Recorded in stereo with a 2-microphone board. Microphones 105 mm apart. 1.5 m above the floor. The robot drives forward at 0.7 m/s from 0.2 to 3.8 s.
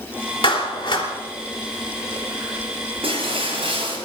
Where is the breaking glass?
65° right (ahead or behind), 9 m; by 4.0 s 60° right (ahead or behind), 9 m.